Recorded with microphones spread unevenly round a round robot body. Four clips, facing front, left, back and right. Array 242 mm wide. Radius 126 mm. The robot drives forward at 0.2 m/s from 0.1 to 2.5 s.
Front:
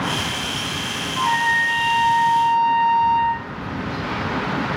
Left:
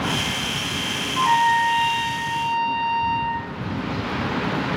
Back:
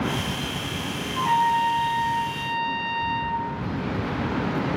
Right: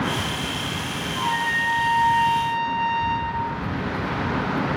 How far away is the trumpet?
About 0.5 m.